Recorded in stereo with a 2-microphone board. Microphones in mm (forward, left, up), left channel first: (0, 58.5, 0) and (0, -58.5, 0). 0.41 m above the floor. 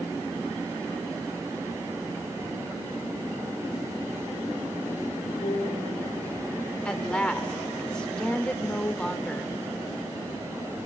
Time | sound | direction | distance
5.4 | a piano | 45° left (ahead or behind) | 9.5 m
6.8 | a woman speaking | 10° left (ahead or behind) | 0.8 m